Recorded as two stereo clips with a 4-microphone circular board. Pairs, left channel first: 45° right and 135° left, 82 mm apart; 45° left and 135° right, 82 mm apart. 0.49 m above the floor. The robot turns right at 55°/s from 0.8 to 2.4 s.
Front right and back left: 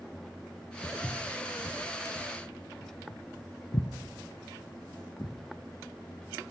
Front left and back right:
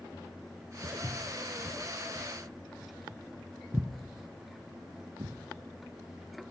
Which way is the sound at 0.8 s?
105° right.